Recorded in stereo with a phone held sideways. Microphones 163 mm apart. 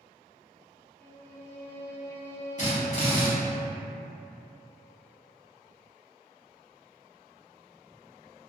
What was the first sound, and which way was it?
A violin, 15° left (ahead or behind).